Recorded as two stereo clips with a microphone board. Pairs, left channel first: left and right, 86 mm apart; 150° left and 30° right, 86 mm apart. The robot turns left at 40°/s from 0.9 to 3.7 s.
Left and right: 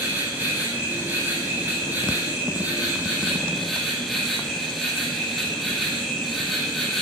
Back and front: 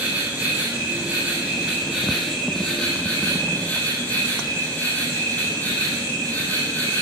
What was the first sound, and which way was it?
An insect, 65° right.